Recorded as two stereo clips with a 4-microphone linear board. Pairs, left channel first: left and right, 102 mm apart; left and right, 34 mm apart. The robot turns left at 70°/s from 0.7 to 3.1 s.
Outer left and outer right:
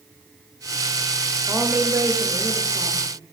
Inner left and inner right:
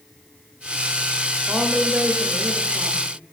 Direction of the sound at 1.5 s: 5° left.